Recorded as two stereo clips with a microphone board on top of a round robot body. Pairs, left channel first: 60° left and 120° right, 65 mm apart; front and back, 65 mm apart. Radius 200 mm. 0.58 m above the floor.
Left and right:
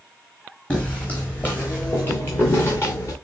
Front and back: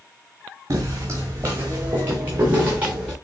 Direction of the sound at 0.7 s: 130° left.